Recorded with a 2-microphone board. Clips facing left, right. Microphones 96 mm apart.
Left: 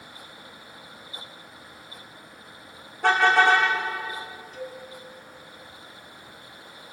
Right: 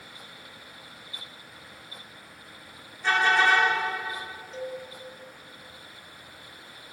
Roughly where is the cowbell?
Right.